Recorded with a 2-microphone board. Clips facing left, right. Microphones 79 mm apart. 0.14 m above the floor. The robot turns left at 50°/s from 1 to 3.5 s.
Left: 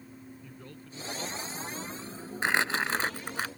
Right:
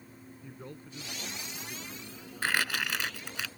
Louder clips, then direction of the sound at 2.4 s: Left 3 dB; 145° left.